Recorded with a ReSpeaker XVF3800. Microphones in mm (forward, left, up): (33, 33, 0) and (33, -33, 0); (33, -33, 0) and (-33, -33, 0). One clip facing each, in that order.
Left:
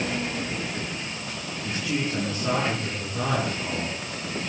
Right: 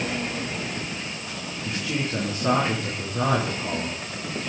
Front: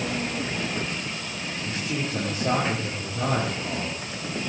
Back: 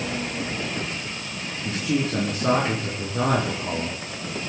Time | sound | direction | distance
1.6 | a man speaking | 165° right | 5 m